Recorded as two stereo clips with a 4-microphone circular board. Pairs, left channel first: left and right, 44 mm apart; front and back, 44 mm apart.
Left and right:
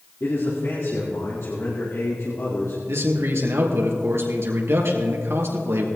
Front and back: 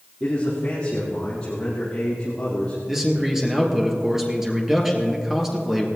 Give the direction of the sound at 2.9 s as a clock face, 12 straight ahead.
3 o'clock.